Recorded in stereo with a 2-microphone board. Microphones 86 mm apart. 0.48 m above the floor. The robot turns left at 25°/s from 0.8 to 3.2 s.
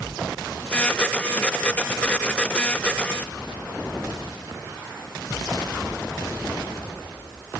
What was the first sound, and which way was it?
Only background noise.